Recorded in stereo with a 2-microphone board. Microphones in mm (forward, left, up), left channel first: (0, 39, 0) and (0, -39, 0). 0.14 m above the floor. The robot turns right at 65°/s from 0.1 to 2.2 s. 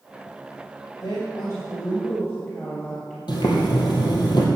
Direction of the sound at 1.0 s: 85° left.